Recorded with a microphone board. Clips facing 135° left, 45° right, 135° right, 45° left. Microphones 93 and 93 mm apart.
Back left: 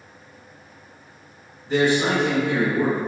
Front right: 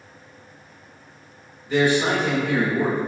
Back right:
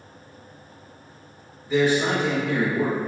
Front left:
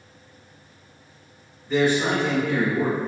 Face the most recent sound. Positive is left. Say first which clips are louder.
# even, even
turn(degrees=145)